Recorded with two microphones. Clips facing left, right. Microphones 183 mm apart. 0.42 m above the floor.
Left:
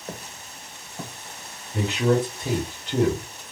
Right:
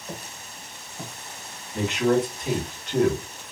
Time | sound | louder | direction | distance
0.1 | footsteps | left 1 dB | 55° left (ahead or behind) | 2 m
1.7 | a man speaking | even | 35° left (ahead or behind) | 1.6 m